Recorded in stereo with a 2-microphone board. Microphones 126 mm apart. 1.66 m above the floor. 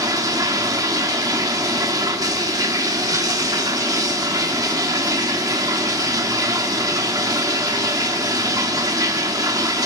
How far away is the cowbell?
I don't hear a cowbell.